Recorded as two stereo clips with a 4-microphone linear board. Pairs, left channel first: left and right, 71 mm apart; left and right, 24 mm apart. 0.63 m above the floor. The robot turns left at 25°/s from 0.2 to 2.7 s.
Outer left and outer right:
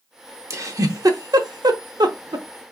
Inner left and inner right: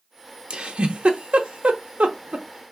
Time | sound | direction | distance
0.5 | a giggle | 40° right (ahead or behind) | 0.7 m